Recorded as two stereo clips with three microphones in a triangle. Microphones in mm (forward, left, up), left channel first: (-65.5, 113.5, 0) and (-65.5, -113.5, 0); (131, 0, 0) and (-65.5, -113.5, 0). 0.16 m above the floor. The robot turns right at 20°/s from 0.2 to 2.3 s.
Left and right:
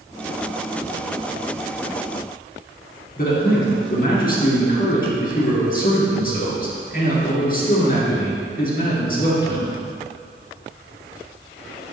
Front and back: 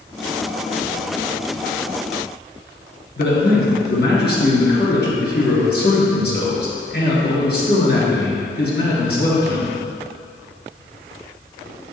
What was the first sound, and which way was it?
A man speaking, 55° left.